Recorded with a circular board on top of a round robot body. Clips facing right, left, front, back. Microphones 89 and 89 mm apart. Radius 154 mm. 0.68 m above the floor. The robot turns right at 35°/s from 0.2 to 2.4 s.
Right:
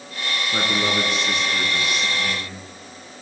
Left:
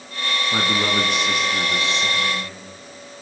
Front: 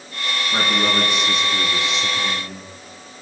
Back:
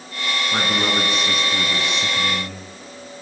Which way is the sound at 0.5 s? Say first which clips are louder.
Left 1 dB, front 2 dB; 105° left.